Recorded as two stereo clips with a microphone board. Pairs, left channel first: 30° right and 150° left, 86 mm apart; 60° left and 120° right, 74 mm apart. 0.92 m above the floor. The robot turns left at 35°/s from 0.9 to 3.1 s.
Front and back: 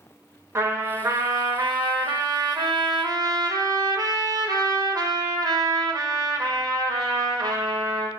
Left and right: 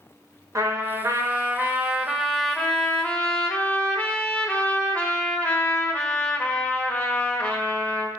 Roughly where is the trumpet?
Behind right.